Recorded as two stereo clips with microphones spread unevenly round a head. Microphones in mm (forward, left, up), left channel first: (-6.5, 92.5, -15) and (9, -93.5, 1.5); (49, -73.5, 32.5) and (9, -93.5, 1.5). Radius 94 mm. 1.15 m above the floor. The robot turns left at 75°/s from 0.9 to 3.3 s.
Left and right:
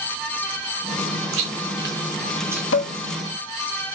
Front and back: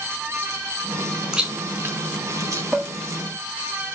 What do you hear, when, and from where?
1.3 s chewing: 70° right, 4 m; by 2.6 s 170° right, 4 m
2.7 s dishes clattering: 120° left, 1.4 m; by 2.9 s 105° left, 1.4 m